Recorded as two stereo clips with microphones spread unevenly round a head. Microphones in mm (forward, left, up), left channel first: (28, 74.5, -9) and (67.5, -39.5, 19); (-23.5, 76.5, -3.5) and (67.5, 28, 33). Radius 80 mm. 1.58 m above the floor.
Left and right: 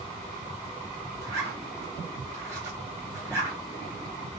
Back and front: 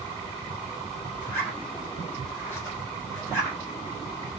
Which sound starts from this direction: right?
A zipper, at 1.2 s.